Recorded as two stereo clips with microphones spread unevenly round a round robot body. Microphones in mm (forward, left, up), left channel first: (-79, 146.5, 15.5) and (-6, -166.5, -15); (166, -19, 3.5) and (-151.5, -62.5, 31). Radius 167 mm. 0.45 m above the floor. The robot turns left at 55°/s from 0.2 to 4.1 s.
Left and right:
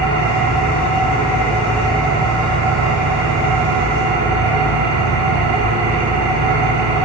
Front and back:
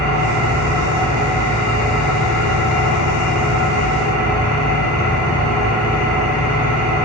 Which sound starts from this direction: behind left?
An engine running, at 0.0 s.